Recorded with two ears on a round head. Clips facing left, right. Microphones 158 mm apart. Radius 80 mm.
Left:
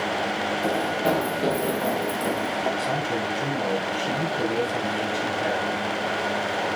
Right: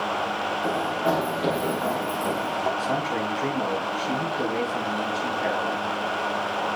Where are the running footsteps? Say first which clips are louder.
Left 1 dB; 35° left (ahead or behind), 3 m; by 2.7 s 10° left (ahead or behind), 2.5 m.